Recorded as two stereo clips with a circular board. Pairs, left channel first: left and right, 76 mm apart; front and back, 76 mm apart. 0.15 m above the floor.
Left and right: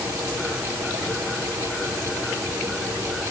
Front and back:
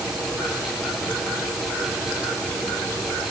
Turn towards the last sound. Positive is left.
No sound to turn to.